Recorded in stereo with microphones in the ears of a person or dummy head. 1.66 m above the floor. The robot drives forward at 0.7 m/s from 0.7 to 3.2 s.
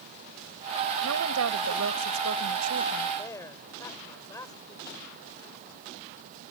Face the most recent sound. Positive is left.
turn(degrees=15)  # may be behind; listen again after turning